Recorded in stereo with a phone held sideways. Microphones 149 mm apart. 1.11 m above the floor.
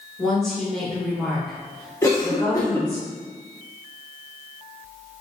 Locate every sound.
0.2 s a woman speaking: 5° left (ahead or behind), 1.2 m
2.0 s a cough: 20° left (ahead or behind), 0.7 m